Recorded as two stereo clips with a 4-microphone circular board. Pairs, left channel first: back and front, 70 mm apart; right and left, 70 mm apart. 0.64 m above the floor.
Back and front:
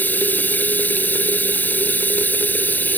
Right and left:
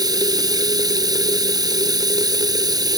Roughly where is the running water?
Behind left.